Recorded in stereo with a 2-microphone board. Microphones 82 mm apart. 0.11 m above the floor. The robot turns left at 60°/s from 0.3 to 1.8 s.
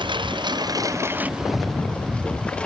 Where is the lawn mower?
105° right; by 2.7 s 165° left.